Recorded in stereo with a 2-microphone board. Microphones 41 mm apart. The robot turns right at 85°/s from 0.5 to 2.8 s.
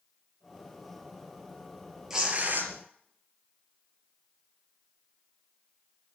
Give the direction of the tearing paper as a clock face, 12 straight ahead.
6 o'clock.